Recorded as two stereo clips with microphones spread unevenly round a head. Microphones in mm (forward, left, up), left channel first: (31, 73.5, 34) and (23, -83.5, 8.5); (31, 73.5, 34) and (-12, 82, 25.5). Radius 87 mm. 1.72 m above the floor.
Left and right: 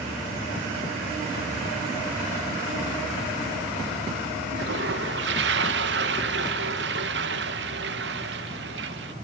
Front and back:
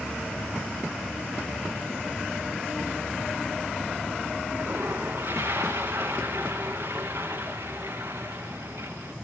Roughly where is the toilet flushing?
Behind right.